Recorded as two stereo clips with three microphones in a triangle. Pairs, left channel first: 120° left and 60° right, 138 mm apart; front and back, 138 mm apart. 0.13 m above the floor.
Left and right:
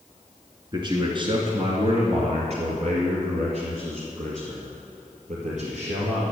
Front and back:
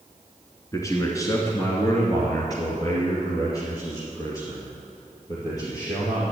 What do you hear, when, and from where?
0.7 s a man speaking: 45° right, 1.8 m; by 6.3 s 65° right, 4 m